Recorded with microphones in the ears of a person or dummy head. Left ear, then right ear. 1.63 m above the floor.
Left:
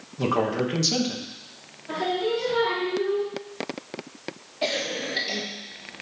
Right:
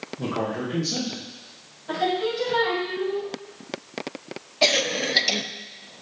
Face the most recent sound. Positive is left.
turn(degrees=-35)  # may be behind; listen again after turning